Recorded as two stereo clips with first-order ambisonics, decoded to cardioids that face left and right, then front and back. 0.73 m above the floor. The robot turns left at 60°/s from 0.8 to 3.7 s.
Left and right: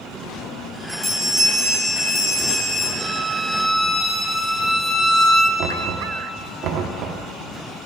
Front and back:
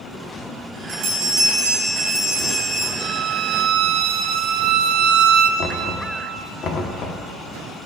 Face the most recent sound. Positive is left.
turn(degrees=-50)